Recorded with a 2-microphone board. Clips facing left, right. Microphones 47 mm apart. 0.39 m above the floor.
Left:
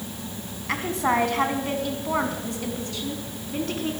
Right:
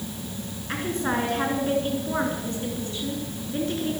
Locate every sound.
0.7 s a woman speaking: 75° left (ahead or behind), 3 m; by 4.0 s 55° left (ahead or behind), 4 m